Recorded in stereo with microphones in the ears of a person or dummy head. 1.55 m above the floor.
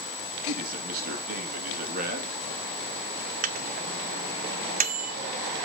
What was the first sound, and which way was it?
A man speaking, 50° right (ahead or behind).